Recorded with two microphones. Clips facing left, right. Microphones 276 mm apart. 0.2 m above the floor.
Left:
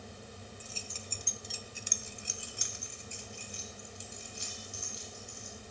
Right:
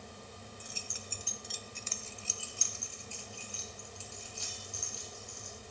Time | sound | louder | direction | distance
0.6 | keys jangling | left 1 dB | 15° right (ahead or behind) | 1.5 m